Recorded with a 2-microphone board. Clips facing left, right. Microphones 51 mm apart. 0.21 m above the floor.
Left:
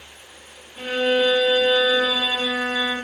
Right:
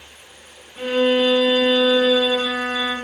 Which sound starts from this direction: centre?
A violin, at 0.8 s.